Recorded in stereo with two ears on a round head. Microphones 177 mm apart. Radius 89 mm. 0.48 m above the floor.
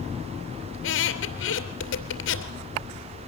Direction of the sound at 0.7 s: 70° left (ahead or behind).